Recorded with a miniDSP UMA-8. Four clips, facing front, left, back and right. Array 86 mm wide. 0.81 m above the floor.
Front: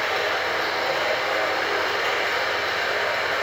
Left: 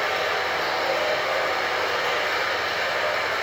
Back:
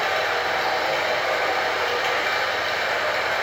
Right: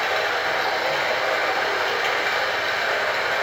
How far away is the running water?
About 2.5 m.